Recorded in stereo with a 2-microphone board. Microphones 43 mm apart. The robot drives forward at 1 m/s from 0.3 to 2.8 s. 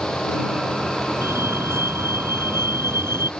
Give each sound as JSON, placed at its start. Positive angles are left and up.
{"t": 1.2, "sound": "a fire alarm", "side_deg": -80}